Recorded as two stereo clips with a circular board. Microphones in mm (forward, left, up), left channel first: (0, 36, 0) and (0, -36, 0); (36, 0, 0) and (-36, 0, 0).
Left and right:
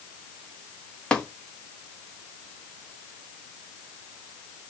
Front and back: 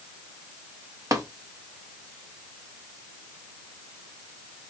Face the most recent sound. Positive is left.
turn(degrees=165)